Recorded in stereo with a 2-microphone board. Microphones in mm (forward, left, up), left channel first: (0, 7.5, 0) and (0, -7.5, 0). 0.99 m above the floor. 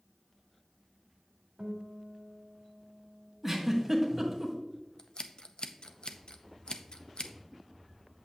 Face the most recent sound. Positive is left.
turn(degrees=65)  # may be behind; listen again after turning